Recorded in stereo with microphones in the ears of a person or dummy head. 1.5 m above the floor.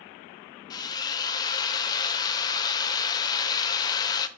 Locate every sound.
0.7 s a drill: 20° left (ahead or behind), 0.9 m